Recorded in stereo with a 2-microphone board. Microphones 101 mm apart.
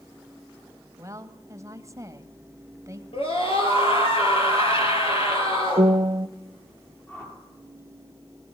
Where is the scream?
65° left (ahead or behind), 7 m.